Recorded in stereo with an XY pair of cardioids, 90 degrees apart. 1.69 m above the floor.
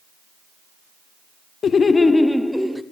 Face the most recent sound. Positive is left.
turn(degrees=-10)